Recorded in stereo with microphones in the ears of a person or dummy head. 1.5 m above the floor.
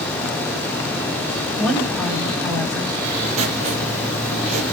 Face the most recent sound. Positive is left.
turn(degrees=-35)  # may be behind; listen again after turning